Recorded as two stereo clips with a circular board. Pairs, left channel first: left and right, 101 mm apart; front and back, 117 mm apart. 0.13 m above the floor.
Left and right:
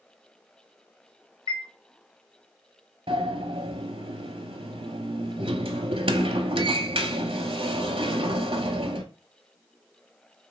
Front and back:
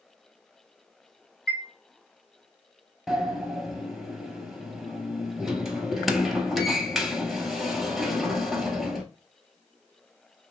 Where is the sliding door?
90° right, 0.6 m.